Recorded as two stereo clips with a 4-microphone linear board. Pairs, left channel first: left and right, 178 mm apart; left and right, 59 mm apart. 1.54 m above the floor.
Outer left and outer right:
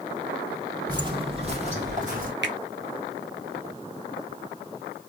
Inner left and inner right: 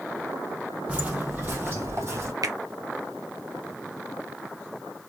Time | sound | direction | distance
0.9 | footsteps | 20° right (ahead or behind) | 1.6 m
2.4 | a finger snap | 80° right | 0.8 m